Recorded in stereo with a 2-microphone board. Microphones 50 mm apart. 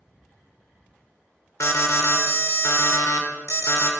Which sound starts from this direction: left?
An alarm, at 1.6 s.